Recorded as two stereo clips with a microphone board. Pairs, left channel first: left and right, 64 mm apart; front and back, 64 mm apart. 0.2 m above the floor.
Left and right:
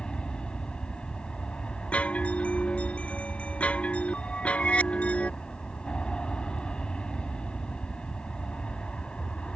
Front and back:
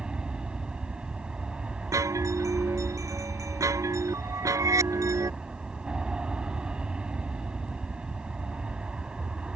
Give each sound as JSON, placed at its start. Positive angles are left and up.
{"t": 0.0, "sound": "an aircraft", "azimuth_deg": 135}
{"t": 1.9, "sound": "a chime", "azimuth_deg": 155}